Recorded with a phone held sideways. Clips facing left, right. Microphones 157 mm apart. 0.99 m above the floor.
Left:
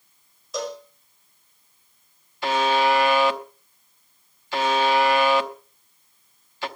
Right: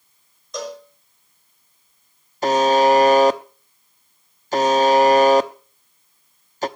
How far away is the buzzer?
About 0.8 m.